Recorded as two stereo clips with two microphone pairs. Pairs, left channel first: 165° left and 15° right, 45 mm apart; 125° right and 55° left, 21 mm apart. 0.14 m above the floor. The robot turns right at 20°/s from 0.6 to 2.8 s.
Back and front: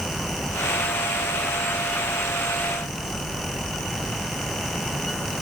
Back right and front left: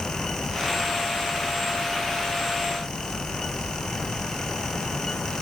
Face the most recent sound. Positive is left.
No sound to turn to.